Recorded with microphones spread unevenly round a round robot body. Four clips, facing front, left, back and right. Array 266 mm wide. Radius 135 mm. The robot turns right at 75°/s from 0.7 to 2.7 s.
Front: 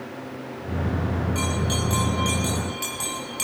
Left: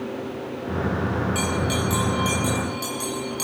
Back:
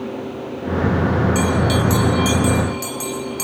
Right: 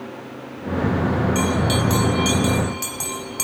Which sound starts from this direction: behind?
A bell, at 1.4 s.